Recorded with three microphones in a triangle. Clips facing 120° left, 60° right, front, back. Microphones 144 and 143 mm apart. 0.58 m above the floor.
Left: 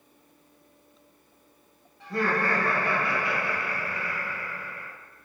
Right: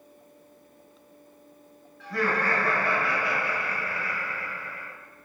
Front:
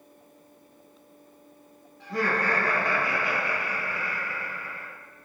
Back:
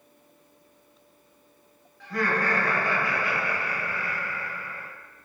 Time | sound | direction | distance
2.0 | laughter | 60° left | 1.5 m